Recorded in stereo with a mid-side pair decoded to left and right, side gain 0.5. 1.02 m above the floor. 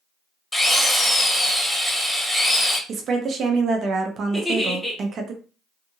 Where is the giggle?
Straight ahead, 1.4 m.